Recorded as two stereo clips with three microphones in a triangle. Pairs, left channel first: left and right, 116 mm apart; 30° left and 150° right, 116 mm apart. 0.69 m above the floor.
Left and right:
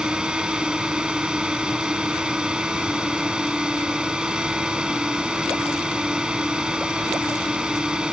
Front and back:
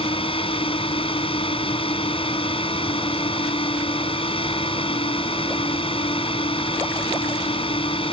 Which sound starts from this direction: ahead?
A drone, at 0.0 s.